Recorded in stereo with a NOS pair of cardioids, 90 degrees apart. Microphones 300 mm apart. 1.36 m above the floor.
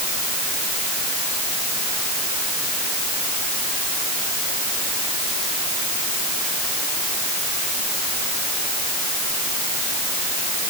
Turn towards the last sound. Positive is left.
No sound to turn to.